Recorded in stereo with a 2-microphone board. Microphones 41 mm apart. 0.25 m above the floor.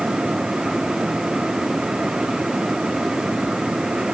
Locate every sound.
Only background noise.